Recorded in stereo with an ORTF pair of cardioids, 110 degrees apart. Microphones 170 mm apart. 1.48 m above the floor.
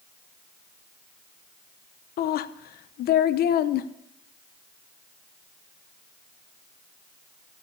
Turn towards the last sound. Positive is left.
turn(degrees=65)